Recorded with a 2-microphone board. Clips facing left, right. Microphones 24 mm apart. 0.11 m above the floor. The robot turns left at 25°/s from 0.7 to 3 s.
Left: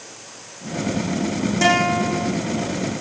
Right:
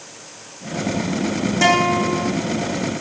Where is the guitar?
10° right (ahead or behind), 6 m; by 2.3 s 25° right (ahead or behind), 6 m.